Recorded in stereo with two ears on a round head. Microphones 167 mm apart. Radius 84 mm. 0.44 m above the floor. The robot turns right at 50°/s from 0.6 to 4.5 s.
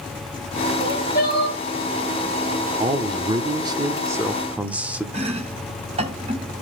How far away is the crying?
About 4.5 m.